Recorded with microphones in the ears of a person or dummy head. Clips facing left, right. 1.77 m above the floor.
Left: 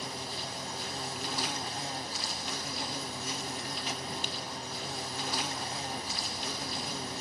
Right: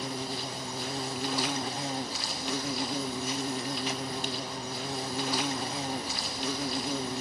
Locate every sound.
0.0 s an insect: 60° right (ahead or behind), 0.9 m